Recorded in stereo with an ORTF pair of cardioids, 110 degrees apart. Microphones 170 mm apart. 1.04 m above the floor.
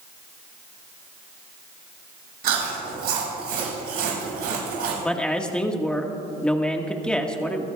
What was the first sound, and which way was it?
Chewing, 65° right.